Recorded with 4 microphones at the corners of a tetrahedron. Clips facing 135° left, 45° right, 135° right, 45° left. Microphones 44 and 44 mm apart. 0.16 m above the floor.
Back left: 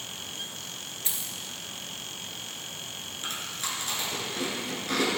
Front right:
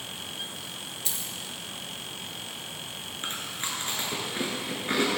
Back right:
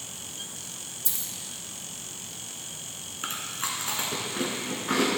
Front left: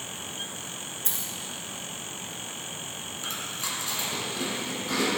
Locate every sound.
1.1 s a dropped coin: 75° left, 1.1 m
3.2 s chewing: 95° right, 1.6 m